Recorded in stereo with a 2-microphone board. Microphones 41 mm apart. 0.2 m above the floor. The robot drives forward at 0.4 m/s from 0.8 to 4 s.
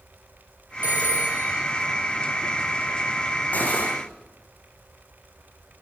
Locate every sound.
0.8 s a phone ringing: 40° right (ahead or behind), 2.5 m
3.5 s cutlery clinking: 40° left (ahead or behind), 7 m